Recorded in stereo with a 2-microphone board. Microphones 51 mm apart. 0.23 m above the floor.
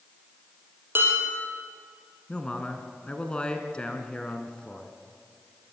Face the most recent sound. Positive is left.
turn(degrees=20)  # may be behind; listen again after turning